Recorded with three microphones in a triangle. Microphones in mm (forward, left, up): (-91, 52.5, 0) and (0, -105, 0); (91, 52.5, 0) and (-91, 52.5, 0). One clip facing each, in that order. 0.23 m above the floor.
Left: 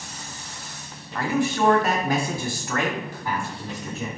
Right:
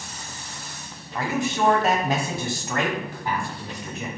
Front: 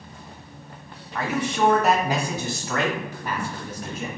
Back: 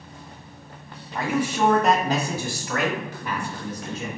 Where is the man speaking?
120° right, 1.4 m; by 4.1 s 10° left, 1.9 m.